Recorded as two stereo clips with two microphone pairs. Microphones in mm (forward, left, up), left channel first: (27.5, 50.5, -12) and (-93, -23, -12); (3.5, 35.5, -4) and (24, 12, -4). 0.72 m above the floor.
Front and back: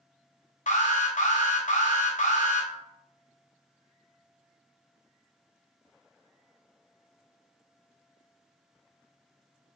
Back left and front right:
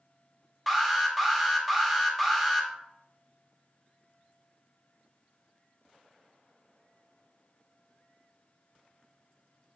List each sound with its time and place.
0.7 s an alarm: 35° left, 0.9 m